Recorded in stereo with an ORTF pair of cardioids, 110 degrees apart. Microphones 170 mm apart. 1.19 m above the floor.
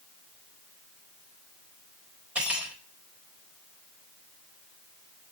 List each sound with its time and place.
2.4 s cutlery clinking: 5° right, 4 m